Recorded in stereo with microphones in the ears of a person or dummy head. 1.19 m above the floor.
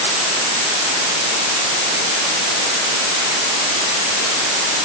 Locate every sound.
Only background noise.